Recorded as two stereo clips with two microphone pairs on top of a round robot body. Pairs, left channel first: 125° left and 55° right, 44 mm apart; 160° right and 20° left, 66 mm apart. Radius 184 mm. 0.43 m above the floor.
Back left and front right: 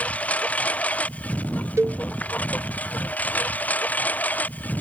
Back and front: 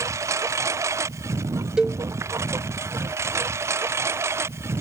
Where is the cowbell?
55° right.